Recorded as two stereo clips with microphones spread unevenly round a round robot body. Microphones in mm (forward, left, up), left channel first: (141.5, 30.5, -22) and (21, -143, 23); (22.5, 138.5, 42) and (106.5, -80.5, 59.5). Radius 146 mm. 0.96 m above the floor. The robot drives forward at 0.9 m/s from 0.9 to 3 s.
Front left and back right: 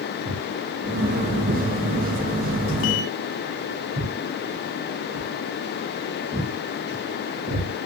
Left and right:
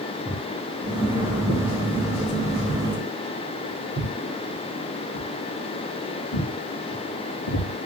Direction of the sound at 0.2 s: 150° right.